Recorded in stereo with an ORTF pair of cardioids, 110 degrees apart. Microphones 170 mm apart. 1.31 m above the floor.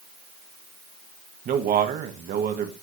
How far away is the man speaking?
About 1.7 m.